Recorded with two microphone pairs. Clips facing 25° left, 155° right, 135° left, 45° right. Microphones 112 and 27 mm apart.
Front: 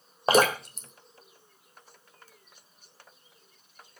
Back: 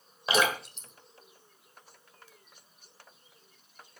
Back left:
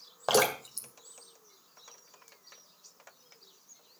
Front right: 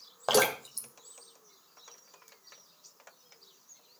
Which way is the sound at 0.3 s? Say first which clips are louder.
Front 5 dB, even; 45° left.